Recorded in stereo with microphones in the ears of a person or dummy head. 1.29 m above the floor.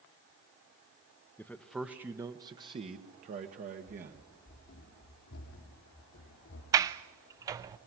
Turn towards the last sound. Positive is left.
turn(degrees=-20)  # may be behind; listen again after turning